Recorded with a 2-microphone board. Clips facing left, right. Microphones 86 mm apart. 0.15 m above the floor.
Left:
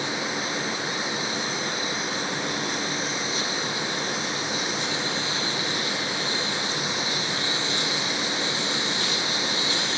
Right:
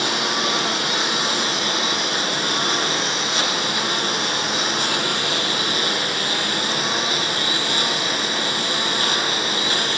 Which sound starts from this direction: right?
A lawn mower, at 0.0 s.